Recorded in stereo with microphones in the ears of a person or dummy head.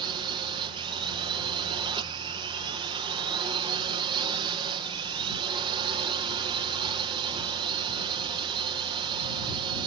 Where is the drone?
30° right (ahead or behind).